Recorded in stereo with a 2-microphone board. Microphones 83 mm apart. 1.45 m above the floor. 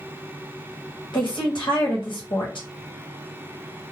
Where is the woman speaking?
75° left (ahead or behind), 1.1 m.